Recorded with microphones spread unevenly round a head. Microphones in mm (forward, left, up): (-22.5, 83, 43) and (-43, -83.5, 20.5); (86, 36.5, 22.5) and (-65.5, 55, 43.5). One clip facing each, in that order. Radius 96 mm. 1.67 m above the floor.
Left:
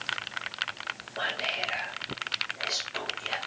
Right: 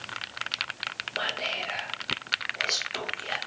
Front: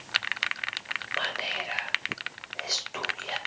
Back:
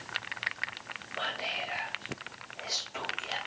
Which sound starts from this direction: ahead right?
Whispering, at 1.2 s.